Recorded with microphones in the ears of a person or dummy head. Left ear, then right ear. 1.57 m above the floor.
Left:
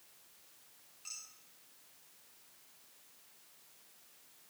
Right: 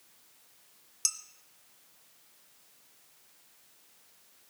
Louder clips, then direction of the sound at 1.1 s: Right 16 dB; 70° right (ahead or behind).